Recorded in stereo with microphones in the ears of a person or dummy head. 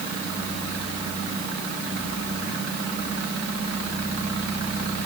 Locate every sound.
Only background noise.